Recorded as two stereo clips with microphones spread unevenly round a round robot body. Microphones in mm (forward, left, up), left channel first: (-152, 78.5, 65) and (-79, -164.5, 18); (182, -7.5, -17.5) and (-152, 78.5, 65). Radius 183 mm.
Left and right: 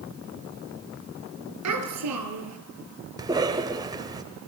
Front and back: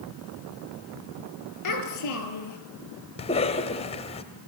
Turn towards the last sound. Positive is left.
turn(degrees=-35)